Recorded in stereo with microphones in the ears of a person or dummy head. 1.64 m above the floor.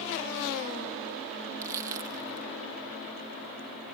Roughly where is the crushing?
Centre.